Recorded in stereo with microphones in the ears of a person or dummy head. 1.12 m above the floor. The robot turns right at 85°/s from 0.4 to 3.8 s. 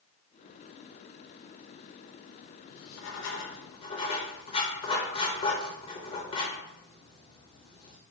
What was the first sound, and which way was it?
Writing, 60° left (ahead or behind).